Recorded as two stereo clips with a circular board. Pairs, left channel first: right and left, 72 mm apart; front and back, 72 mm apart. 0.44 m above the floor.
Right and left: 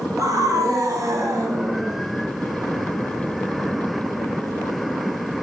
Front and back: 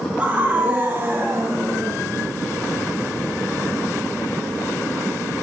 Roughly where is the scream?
Left.